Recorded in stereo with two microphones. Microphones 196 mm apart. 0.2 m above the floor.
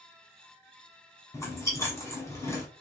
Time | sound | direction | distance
1.3 | chewing | 15° left (ahead or behind) | 1.2 m